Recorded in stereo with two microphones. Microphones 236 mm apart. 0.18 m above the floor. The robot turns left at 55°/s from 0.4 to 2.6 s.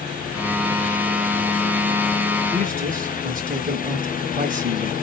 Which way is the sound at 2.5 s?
30° right (ahead or behind).